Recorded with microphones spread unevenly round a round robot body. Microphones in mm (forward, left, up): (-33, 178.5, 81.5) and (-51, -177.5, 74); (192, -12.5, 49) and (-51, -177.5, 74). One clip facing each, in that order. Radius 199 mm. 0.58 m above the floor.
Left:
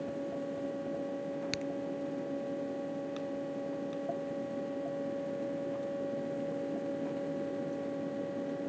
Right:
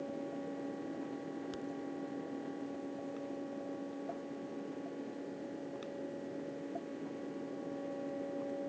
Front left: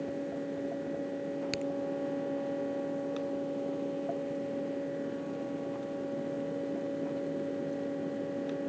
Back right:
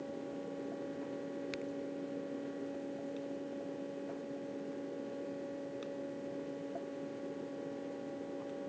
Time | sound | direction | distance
1.5 | a crack | 80° left | ?